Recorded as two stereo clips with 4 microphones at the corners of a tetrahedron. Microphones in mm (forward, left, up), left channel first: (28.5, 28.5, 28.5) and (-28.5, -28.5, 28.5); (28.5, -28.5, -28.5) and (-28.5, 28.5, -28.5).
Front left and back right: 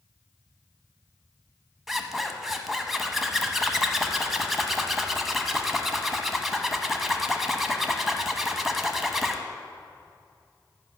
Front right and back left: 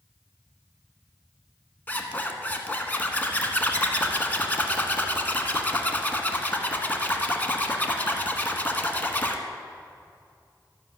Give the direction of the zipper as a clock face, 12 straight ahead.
2 o'clock.